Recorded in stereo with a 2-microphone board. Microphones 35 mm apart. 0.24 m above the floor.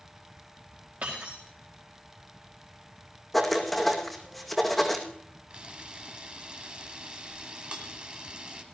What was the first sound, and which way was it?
Breaking glass, 60° right (ahead or behind).